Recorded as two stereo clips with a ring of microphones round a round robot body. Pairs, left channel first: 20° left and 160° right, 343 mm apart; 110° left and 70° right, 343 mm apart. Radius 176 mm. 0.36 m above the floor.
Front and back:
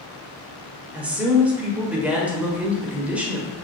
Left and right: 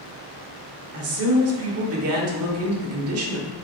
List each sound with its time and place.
0.9 s a woman speaking: 75° right, 1.1 m